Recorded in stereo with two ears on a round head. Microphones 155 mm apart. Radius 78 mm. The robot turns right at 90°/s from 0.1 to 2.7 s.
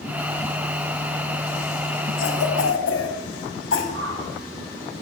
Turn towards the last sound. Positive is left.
turn(degrees=-85)